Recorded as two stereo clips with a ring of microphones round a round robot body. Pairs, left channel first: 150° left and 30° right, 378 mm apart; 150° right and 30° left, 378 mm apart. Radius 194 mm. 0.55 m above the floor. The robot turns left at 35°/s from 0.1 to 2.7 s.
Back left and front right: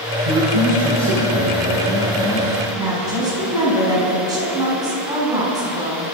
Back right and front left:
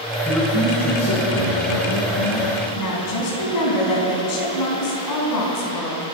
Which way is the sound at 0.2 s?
60° right.